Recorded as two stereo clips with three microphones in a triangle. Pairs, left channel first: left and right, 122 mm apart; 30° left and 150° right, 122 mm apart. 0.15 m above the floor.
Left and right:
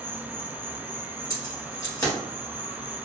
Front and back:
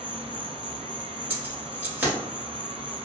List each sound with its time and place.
0.0 s an insect: 135° left, 0.9 m
1.3 s keys jangling: 140° left, 1.5 m